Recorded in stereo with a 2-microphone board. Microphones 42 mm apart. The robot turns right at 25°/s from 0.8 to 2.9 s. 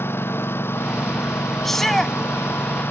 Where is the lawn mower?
70° left; by 2.9 s 120° left.